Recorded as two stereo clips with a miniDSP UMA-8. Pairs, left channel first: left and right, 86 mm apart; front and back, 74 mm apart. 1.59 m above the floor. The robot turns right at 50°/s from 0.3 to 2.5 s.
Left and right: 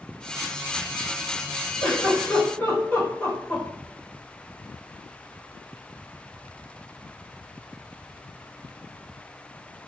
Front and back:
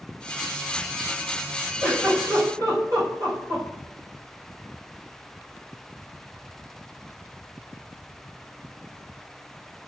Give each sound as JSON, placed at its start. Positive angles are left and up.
{"t": 1.8, "sound": "a giggle", "azimuth_deg": 120, "distance_m": 1.2}